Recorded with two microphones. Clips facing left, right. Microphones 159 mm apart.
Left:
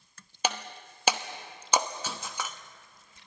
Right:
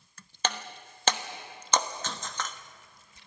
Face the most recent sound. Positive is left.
turn(degrees=10)  # may be behind; listen again after turning